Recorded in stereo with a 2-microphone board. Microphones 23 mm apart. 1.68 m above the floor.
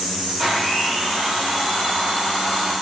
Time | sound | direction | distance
0.4 | a blender | 20° right (ahead or behind) | 1.4 m